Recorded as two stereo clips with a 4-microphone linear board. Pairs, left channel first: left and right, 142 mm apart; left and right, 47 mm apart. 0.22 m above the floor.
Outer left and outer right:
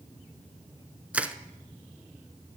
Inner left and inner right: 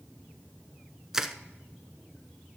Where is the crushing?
10° right (ahead or behind), 0.6 m.